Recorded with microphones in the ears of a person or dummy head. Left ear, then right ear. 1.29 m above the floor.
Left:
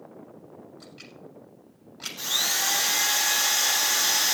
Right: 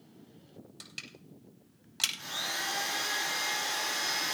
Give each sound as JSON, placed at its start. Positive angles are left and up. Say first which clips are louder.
{"t": 0.8, "sound": "crushing", "louder": "even", "side_deg": -70, "distance_m": 10.0}
{"t": 2.2, "sound": "a drill", "louder": "left 9 dB", "side_deg": 75, "distance_m": 2.0}